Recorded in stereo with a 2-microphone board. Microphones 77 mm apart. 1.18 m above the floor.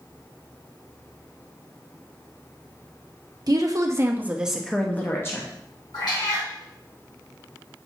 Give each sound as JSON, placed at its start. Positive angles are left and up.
{"t": 3.5, "sound": "a woman speaking", "side_deg": -55, "distance_m": 0.9}
{"t": 5.9, "sound": "a cat meowing", "side_deg": 65, "distance_m": 3.0}